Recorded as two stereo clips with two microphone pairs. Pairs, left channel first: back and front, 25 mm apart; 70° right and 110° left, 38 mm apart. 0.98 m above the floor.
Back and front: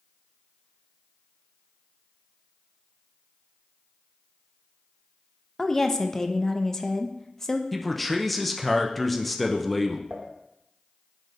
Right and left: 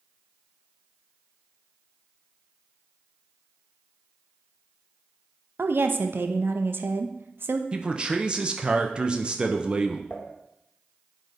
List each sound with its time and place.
5.6 s a woman speaking: 110° left, 0.6 m
7.7 s a man speaking: 115° left, 0.5 m
10.1 s dishes clattering: 15° right, 1.4 m